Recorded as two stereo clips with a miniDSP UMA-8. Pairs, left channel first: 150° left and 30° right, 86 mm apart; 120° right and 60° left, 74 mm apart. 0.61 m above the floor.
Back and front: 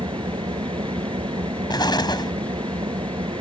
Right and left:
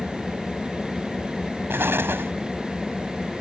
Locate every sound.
0.0 s an engine running: 30° right
1.7 s an explosion: 120° left